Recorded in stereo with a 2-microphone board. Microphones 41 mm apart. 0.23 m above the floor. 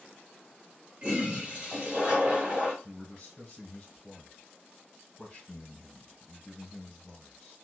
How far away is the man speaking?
About 1.5 m.